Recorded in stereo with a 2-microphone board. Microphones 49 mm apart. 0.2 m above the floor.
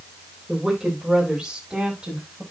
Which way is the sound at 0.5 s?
5° right (ahead or behind).